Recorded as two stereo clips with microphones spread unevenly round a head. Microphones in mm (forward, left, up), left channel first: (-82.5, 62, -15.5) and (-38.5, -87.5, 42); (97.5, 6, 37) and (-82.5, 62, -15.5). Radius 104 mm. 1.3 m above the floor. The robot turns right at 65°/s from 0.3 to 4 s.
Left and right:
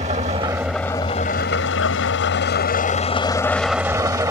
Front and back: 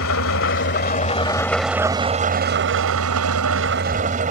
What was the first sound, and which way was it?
An engine running, 20° right.